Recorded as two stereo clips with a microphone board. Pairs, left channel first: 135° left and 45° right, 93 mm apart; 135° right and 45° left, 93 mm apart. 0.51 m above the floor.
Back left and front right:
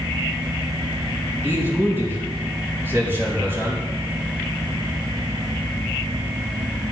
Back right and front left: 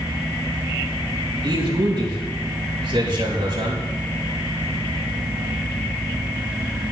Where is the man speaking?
20° left, 4 m.